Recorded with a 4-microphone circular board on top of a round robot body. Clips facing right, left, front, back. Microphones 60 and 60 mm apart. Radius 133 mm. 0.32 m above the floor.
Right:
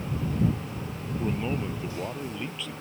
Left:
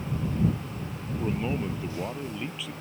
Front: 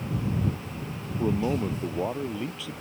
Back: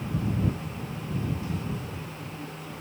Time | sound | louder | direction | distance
1.2 | a man speaking | left 1 dB, front 11 dB | 10° left | ?